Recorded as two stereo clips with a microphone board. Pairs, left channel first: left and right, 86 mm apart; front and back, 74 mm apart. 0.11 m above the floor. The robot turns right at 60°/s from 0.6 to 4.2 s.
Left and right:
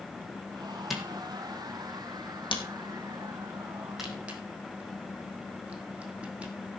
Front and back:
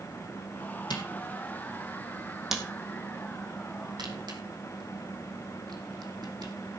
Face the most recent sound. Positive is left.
turn(degrees=-165)